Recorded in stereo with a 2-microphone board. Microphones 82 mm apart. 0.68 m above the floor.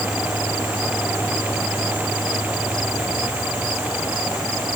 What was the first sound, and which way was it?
Only background noise.